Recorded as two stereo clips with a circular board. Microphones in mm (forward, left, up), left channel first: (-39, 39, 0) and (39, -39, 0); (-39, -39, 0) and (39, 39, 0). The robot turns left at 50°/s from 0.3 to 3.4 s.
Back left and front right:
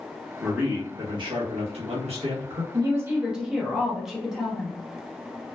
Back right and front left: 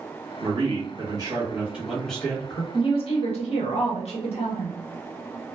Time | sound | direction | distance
0.4 | a man speaking | 35° left | 1.2 m
2.7 | a woman speaking | 100° right | 1.2 m